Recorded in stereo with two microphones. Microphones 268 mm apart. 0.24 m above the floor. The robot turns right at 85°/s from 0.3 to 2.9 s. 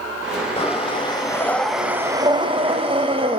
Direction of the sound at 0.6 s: 20° left (ahead or behind).